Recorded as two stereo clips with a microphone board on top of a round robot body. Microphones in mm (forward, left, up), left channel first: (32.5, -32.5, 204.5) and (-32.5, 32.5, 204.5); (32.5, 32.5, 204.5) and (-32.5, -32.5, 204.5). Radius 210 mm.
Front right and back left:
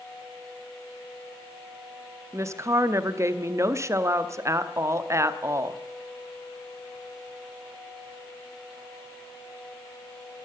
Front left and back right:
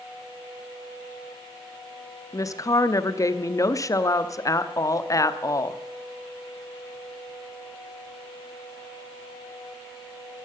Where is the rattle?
I don't hear a rattle.